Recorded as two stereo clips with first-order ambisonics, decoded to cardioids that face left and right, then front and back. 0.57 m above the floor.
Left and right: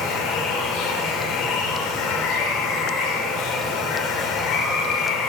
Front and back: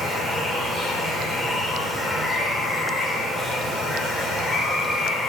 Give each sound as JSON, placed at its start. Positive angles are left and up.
{"t": 0.0, "sound": "running water", "azimuth_deg": 95, "distance_m": 1.7}